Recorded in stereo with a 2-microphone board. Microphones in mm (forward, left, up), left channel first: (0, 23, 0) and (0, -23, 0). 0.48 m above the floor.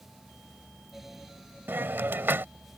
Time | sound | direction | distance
1.7 | a hiss | 50° right (ahead or behind) | ?